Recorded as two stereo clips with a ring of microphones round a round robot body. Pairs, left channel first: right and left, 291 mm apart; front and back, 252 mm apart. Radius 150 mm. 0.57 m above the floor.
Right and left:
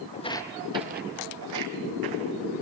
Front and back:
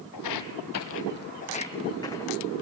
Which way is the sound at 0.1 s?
25° right.